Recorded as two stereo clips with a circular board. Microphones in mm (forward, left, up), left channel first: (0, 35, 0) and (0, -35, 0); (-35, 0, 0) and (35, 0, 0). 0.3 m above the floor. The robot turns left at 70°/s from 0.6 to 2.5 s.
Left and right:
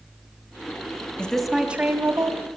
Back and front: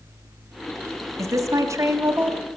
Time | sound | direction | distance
1.2 | a woman speaking | 15° left | 2 m